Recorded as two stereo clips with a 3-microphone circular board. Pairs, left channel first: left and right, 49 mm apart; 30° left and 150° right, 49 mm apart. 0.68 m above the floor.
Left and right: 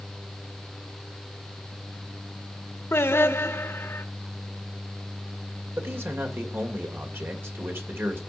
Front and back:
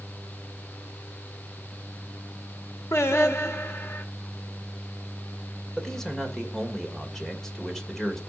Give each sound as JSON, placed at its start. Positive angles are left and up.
{"t": 2.9, "sound": "singing", "azimuth_deg": 60, "distance_m": 1.1}
{"t": 5.8, "sound": "a man speaking", "azimuth_deg": -50, "distance_m": 2.0}